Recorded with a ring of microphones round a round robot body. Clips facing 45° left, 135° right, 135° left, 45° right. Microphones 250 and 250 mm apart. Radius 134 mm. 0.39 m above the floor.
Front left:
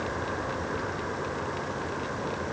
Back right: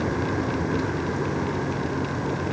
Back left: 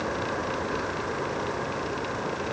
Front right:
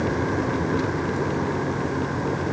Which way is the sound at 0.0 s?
90° right.